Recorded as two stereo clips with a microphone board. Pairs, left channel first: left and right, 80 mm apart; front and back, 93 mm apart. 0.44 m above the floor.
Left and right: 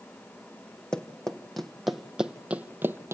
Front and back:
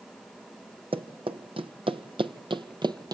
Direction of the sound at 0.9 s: 170° left.